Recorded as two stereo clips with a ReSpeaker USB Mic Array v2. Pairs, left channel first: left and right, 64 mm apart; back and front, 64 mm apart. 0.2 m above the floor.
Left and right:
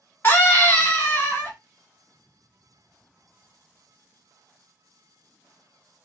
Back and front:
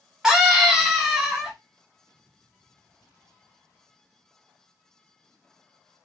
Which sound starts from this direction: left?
A scream, at 0.2 s.